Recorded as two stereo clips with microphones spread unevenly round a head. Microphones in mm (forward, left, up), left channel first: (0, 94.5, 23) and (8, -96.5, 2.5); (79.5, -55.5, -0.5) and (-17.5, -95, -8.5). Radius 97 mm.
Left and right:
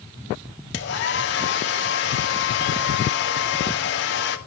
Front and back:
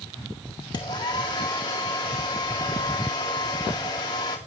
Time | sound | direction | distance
0.7 | a hair dryer | 80° left | 1.8 m